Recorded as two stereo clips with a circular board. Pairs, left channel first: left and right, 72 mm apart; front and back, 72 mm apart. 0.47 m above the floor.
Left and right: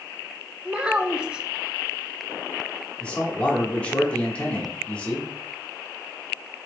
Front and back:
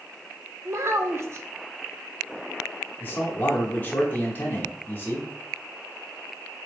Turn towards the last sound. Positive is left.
turn(degrees=30)